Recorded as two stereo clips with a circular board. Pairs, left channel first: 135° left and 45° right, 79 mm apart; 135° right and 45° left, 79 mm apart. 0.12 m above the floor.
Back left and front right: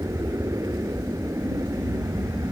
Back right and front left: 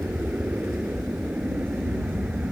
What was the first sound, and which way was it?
An aircraft, 25° right.